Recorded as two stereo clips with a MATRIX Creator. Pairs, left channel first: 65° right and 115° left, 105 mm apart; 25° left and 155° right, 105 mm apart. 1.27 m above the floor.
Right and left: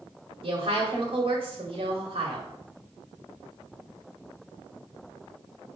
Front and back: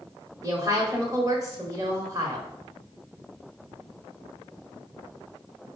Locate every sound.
0.4 s a woman speaking: 140° left, 1.1 m